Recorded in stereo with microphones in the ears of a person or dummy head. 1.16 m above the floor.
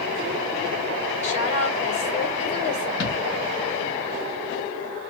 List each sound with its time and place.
1.2 s a woman speaking: 40° left (ahead or behind), 2 m
3.0 s a thud: 65° left (ahead or behind), 3 m